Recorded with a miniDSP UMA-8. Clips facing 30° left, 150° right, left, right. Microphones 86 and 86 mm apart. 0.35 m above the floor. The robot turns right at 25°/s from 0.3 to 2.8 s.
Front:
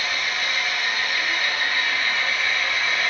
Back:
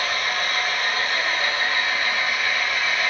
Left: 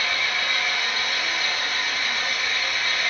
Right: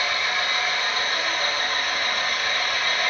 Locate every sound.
0.0 s an engine running: 130° right, 1.5 m; by 3.1 s 65° right, 1.5 m